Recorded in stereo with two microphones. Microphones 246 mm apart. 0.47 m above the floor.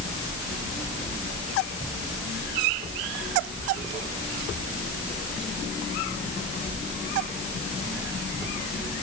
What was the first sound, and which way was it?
Only background noise.